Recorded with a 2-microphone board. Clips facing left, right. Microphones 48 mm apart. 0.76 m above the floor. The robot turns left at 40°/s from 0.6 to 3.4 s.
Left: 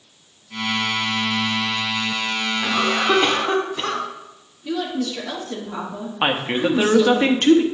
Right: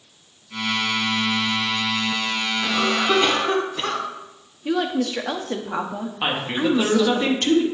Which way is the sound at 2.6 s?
30° left.